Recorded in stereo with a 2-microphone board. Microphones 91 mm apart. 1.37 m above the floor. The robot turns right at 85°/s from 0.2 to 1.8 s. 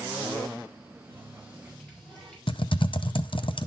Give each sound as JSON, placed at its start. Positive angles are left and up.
{"t": 1.1, "sound": "a running tap", "azimuth_deg": 105, "distance_m": 4.5}
{"t": 2.5, "sound": "typing on a keyboard", "side_deg": 65, "distance_m": 0.5}